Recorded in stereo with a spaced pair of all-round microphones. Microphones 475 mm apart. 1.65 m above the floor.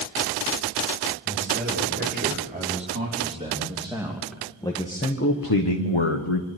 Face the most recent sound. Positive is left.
turn(degrees=80)